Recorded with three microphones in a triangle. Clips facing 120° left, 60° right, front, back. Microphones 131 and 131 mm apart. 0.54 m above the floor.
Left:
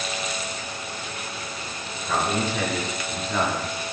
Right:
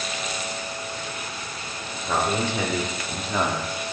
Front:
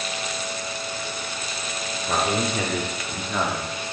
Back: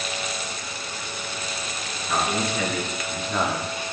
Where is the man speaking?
5° left, 2.5 m; by 3.7 s 145° right, 1.3 m.